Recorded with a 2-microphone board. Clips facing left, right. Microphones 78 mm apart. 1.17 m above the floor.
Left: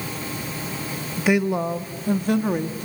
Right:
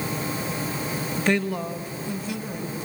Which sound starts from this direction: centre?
A woman speaking, at 1.2 s.